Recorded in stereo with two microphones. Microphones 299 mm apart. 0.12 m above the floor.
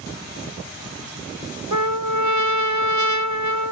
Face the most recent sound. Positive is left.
turn(degrees=-75)  # may be behind; listen again after turning